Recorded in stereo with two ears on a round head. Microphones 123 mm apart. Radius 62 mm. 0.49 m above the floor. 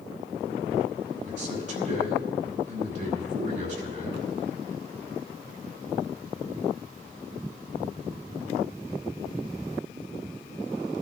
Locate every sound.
1.3 s a man speaking: 60° right (ahead or behind), 4 m